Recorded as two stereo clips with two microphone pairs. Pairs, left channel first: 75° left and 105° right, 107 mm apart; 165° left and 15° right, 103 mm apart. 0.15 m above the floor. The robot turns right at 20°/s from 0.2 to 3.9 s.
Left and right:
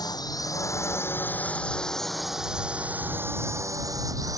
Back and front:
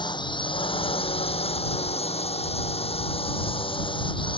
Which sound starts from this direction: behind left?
A drone, at 0.0 s.